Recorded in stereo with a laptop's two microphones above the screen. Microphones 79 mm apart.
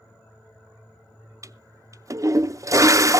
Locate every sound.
1.4 s a toilet flushing: 40° right (ahead or behind), 0.5 m